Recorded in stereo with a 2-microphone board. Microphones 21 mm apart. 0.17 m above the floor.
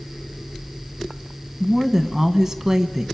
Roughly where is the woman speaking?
Centre.